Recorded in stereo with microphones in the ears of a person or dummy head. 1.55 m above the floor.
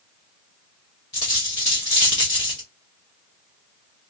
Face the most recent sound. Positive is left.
turn(degrees=20)  # may be behind; listen again after turning